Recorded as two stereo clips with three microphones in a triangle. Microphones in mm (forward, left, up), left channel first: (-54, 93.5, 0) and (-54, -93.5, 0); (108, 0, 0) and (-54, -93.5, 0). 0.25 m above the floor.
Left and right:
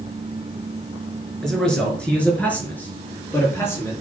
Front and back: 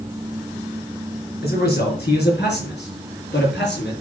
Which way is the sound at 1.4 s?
Straight ahead.